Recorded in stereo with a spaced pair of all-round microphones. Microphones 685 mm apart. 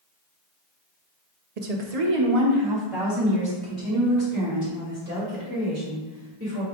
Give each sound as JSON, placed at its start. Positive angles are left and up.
{"t": 1.6, "sound": "a woman speaking", "side_deg": -70, "distance_m": 0.7}